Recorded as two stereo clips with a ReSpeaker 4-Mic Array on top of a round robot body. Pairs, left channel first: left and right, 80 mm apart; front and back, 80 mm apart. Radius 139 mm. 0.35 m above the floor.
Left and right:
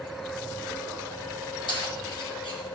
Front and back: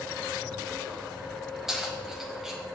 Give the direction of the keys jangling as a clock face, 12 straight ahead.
9 o'clock.